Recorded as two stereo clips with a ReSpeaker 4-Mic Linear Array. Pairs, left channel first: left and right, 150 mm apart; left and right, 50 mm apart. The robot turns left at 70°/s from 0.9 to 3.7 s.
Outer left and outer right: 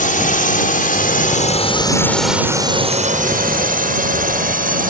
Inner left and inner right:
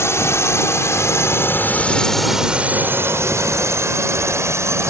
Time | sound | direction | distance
0.0 | a drone | 60° left (ahead or behind) | ?